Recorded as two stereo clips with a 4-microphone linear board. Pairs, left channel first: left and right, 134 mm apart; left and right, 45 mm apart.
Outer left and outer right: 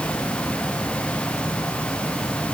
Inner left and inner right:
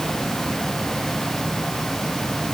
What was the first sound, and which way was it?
Only background noise.